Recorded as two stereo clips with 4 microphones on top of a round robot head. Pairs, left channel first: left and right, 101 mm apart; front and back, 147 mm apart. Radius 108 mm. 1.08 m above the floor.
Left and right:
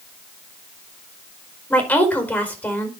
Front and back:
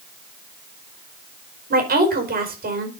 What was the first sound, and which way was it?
A woman speaking, 165° left.